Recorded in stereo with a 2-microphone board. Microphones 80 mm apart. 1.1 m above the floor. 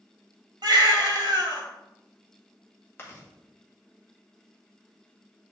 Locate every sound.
0.6 s a baby crying: 70° right (ahead or behind), 1.8 m
3.0 s chewing: 30° left (ahead or behind), 1.9 m